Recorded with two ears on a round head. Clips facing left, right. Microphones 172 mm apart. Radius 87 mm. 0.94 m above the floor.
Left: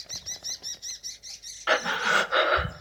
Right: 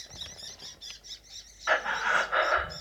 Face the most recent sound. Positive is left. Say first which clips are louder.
# left 3 dB
turn(degrees=40)  # may be behind; listen again after turning